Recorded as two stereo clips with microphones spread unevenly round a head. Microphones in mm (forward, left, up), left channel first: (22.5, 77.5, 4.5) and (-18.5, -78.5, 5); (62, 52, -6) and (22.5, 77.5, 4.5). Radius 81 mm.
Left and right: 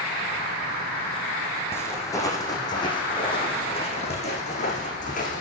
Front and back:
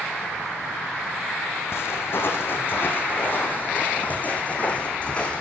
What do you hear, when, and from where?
1.7 s footsteps: straight ahead, 4 m; by 5.4 s 35° left, 4.5 m